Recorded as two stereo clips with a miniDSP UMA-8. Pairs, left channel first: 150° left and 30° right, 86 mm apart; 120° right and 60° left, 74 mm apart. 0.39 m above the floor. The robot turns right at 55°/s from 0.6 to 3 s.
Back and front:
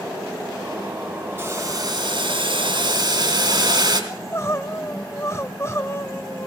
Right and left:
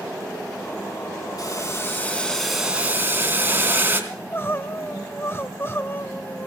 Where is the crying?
165° right, 1.1 m.